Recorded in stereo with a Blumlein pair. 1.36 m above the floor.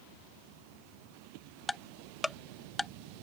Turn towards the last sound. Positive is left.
turn(degrees=5)